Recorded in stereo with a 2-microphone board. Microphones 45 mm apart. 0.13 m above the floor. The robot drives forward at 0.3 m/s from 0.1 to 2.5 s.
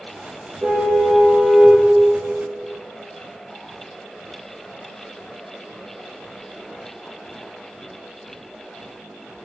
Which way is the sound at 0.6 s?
40° right (ahead or behind).